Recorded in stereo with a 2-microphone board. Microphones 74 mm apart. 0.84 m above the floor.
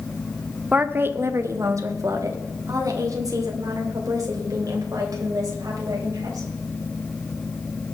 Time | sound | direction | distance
0.7 | a woman speaking | 15° right (ahead or behind) | 0.6 m